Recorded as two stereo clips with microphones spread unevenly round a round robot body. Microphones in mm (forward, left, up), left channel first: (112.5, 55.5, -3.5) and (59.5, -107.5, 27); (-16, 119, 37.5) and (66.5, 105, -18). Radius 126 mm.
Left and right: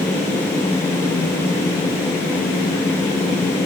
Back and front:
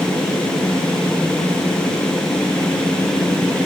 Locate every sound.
Only background noise.